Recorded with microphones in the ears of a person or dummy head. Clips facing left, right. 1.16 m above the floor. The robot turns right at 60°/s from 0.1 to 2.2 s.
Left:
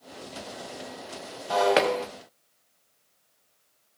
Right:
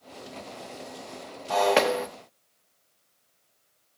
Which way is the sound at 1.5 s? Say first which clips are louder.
Even; 160° left.